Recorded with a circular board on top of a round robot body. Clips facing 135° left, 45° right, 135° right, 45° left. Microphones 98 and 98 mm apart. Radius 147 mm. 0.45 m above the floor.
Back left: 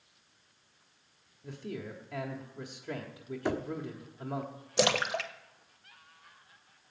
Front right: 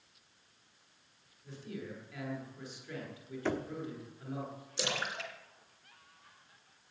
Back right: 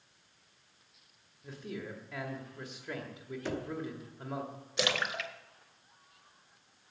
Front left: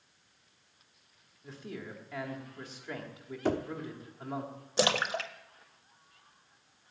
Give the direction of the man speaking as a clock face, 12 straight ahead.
7 o'clock.